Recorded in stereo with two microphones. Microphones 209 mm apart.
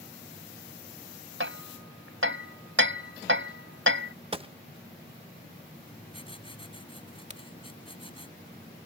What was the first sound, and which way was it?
Hammering, 70° right (ahead or behind).